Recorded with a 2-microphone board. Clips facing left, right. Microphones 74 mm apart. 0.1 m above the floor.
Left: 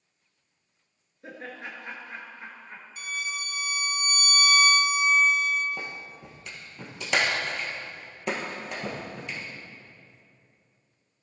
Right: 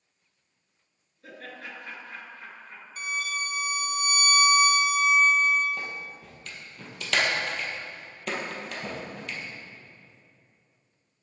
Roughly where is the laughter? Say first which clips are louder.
Left 2 dB; left.